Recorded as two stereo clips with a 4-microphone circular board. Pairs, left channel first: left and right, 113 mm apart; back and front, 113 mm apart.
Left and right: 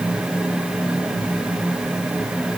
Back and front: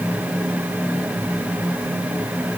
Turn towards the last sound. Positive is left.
No sound to turn to.